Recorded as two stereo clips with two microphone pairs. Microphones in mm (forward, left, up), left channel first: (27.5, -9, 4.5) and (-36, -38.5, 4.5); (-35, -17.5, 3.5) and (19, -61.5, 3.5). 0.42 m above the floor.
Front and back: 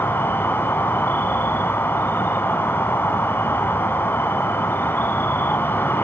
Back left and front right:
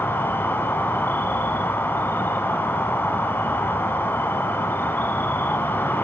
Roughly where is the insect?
Left.